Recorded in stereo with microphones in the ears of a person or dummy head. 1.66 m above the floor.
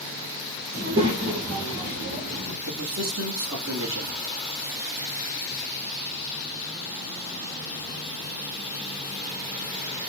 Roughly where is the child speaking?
Right.